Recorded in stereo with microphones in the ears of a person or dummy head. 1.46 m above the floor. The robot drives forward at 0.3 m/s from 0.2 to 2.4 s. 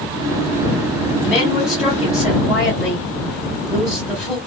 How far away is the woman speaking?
About 1.3 m.